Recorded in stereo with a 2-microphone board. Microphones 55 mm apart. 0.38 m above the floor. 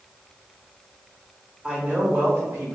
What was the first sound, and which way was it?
A woman speaking, 15° right (ahead or behind).